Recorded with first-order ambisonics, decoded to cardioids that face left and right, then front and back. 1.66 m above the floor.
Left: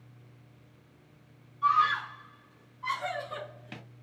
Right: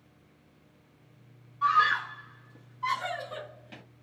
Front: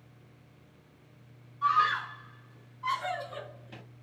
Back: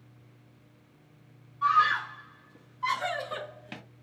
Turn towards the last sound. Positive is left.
turn(degrees=150)